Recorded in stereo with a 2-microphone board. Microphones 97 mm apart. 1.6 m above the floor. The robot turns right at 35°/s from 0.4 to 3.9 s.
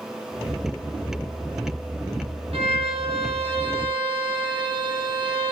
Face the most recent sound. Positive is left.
turn(degrees=-55)